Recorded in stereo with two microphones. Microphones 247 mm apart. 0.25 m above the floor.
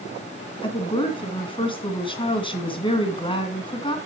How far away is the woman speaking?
About 2.5 m.